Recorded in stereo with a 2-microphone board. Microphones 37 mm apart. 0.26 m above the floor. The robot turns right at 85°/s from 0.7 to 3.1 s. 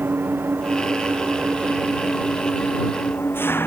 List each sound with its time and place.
0.0 s an engine running: 110° right; by 3.7 s 95° left